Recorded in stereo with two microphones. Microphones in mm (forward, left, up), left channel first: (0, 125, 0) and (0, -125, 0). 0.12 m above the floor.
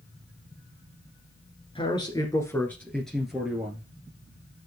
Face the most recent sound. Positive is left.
turn(degrees=-5)  # may be behind; listen again after turning